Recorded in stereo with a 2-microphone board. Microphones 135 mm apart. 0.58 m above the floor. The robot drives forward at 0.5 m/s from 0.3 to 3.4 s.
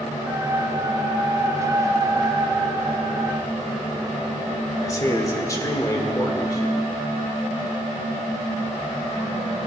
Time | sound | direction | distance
4.8 | a man speaking | 25° left (ahead or behind) | 1.8 m